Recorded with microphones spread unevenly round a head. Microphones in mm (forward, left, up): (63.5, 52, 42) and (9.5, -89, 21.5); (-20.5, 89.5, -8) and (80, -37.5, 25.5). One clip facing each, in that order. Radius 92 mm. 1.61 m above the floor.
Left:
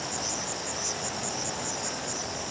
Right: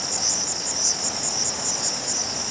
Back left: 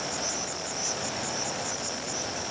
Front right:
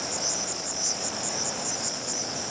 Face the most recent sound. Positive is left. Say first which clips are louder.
# right 1 dB, even
turn(degrees=-110)